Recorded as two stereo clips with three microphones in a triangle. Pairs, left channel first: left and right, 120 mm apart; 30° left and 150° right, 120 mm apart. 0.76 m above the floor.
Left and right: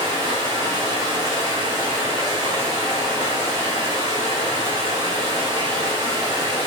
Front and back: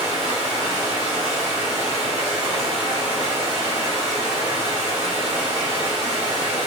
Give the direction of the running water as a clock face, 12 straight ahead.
5 o'clock.